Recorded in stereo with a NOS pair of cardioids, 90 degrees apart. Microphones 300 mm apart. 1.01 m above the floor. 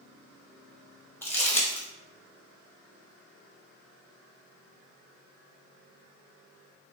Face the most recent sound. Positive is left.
turn(degrees=5)